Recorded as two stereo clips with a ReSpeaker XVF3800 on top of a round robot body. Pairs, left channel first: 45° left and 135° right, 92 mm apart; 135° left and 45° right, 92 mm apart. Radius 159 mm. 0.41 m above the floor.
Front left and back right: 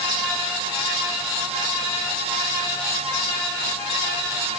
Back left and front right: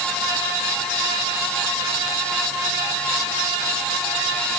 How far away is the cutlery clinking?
No cutlery clinking in this recording.